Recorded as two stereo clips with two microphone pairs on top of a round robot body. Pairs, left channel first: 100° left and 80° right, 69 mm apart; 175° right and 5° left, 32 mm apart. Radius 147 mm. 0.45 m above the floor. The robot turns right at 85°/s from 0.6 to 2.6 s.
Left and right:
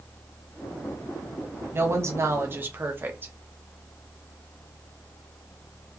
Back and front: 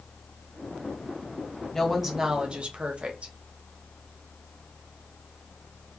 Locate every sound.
1.7 s a woman speaking: 115° right, 0.8 m; by 3.3 s 40° right, 0.8 m